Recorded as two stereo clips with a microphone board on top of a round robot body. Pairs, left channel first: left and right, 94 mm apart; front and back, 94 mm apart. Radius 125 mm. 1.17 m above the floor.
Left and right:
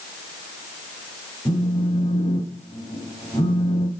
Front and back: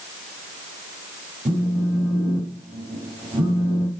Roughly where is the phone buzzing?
Behind left.